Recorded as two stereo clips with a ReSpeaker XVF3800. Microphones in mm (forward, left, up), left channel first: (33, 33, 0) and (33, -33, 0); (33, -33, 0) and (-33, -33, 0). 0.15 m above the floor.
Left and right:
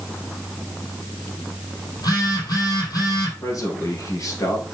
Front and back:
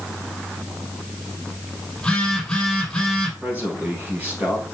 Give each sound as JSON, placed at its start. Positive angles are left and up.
{"t": 2.0, "sound": "a phone buzzing", "azimuth_deg": 80, "distance_m": 3.5}
{"t": 3.4, "sound": "a man speaking", "azimuth_deg": 115, "distance_m": 2.5}